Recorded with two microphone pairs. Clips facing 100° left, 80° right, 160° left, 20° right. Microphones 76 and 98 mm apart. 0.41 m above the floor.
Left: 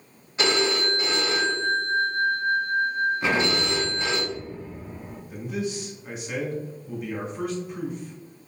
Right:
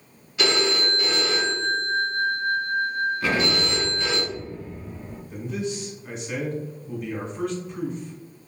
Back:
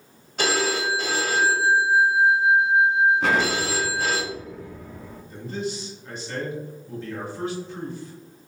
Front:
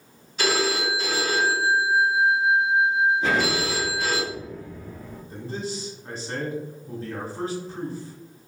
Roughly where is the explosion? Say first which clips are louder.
Even, back 1 dB; behind.